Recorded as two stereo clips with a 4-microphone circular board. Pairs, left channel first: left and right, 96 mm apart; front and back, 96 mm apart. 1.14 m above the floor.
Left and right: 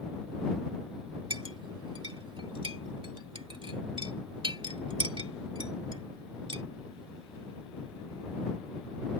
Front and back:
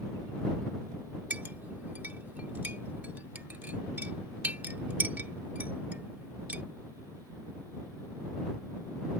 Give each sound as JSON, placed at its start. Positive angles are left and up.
{"t": 1.3, "sound": "a clink", "azimuth_deg": -110}